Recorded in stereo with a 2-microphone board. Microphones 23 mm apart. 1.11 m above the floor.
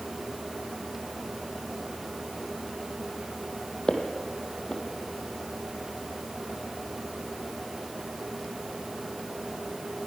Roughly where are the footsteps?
Left.